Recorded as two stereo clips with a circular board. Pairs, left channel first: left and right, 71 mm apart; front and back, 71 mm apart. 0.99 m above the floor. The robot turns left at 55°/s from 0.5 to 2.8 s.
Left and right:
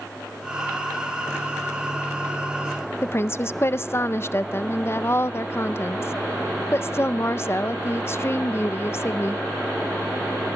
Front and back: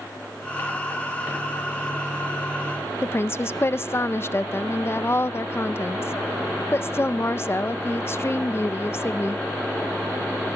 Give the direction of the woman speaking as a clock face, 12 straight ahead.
10 o'clock.